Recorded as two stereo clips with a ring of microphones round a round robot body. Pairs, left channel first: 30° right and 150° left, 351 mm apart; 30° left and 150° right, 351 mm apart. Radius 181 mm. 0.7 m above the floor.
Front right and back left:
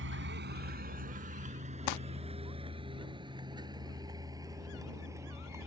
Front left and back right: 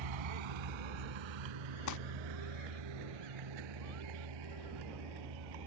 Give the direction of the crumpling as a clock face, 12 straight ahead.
1 o'clock.